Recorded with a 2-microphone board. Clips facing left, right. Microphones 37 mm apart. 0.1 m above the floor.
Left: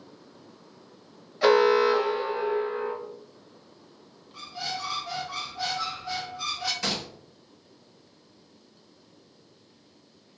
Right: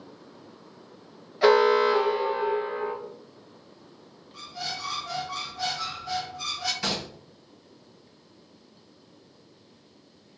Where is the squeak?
10° left (ahead or behind), 0.9 m.